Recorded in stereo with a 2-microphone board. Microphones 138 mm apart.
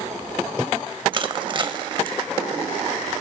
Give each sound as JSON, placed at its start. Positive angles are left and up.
{"t": 1.1, "sound": "crushing", "side_deg": -35, "distance_m": 0.5}